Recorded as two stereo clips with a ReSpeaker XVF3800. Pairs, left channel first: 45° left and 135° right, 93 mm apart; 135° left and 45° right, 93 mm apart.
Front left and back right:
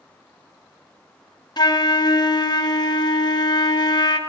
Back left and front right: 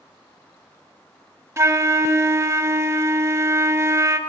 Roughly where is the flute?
Ahead.